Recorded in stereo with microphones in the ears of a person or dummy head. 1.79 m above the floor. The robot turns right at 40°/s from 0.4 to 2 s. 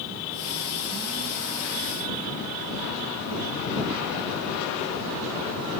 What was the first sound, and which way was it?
Only background noise.